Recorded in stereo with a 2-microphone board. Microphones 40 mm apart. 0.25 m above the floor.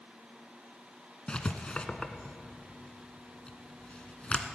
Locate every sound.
1.3 s writing: 30° left (ahead or behind), 1.0 m